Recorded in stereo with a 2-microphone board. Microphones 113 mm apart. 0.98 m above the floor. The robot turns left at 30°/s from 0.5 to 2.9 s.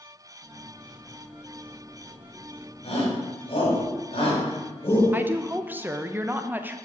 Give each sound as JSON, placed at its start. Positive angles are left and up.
{"t": 2.8, "sound": "a shout", "side_deg": 50, "distance_m": 5.0}
{"t": 5.1, "sound": "a woman speaking", "side_deg": -15, "distance_m": 0.7}